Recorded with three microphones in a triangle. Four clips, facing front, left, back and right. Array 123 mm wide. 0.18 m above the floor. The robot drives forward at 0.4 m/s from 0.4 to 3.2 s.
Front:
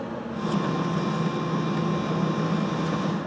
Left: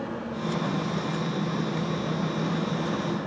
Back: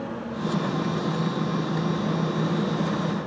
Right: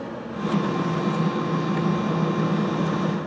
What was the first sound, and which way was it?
Only background noise.